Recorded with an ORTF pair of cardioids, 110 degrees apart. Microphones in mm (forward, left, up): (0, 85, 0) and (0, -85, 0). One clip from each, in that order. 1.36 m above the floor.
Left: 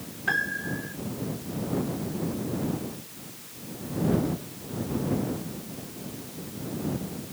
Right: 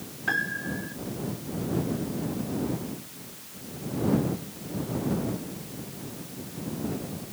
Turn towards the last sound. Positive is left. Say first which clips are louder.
# left 1 dB
turn(degrees=5)